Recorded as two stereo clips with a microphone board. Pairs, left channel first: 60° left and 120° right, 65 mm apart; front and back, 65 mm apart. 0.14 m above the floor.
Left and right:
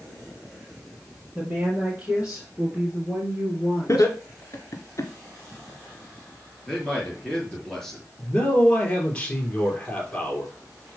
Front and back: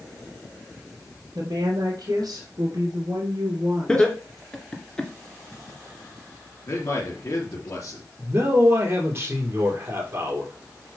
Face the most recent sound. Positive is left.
turn(degrees=130)